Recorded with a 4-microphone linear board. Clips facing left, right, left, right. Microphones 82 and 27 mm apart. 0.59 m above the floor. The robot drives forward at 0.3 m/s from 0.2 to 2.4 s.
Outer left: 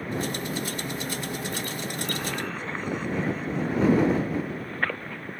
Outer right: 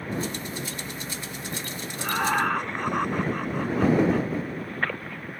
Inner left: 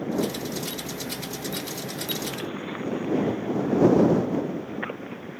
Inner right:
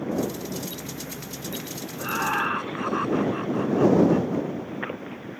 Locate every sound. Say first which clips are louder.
2.0 s laughter: outer right 10 dB, inner right 9 dB; 65° right (ahead or behind)